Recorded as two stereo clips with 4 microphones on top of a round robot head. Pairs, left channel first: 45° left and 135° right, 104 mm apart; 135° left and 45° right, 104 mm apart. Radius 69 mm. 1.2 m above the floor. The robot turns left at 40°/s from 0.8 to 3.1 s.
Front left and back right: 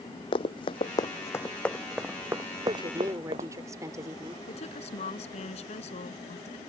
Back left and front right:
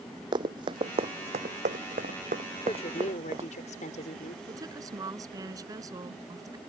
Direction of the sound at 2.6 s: 175° left.